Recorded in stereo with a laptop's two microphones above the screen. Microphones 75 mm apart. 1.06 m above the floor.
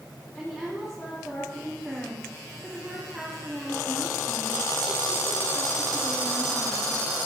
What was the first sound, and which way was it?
A woman speaking, 5° left (ahead or behind).